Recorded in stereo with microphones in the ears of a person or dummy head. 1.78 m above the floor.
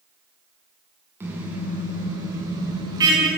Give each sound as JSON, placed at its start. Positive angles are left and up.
{"t": 1.2, "sound": "a car horn", "side_deg": -10, "distance_m": 7.5}